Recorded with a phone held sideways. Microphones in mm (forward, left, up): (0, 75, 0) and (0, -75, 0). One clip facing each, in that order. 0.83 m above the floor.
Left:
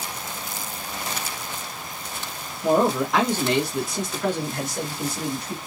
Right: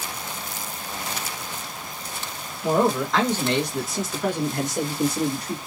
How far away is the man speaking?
About 1.2 m.